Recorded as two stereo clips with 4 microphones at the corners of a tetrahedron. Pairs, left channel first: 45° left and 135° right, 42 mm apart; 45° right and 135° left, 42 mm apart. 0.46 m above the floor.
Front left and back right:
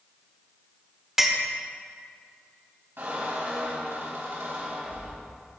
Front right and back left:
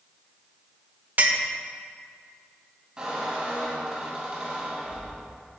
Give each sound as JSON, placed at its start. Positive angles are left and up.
{"t": 1.2, "sound": "a clink", "azimuth_deg": 145, "distance_m": 1.0}
{"t": 3.0, "sound": "a squeak", "azimuth_deg": -155, "distance_m": 2.5}